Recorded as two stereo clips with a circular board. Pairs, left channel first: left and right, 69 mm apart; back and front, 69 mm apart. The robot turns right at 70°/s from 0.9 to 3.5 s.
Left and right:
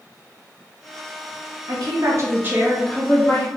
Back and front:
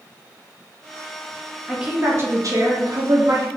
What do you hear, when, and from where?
1.7 s a woman speaking: 85° right, 0.7 m; by 3.5 s 40° left, 0.7 m